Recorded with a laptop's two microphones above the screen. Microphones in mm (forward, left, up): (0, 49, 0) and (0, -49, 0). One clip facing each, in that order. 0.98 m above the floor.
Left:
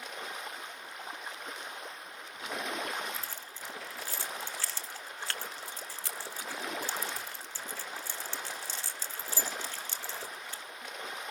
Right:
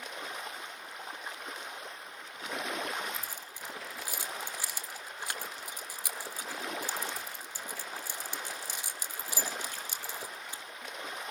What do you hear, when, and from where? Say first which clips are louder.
3.1 s keys jangling: even; 15° right (ahead or behind), 1.3 m